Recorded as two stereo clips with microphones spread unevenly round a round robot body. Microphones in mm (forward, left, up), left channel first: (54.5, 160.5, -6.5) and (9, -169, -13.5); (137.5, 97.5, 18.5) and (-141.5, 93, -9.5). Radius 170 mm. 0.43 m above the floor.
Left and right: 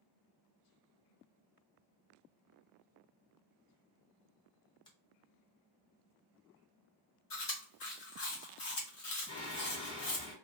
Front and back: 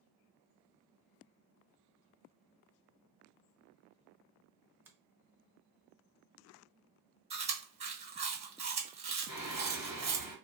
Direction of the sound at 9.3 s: 25° left.